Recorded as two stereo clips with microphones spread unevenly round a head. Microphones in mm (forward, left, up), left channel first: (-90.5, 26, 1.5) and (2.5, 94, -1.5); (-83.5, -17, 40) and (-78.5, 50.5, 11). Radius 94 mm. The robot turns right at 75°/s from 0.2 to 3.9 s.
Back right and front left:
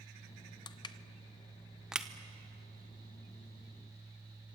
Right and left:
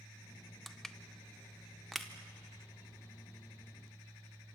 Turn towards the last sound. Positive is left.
turn(degrees=100)